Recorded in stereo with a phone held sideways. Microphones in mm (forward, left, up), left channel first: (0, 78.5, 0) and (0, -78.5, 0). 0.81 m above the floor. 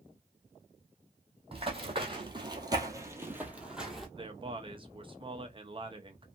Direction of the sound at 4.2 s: 30° right (ahead or behind).